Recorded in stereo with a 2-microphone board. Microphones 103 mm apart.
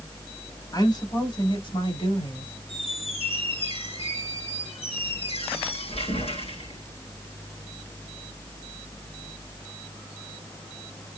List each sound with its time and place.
0.7 s a woman speaking: 40° left (ahead or behind), 2.5 m; by 2.5 s 60° left (ahead or behind), 2.5 m
2.7 s a squeak: 70° left (ahead or behind), 3 m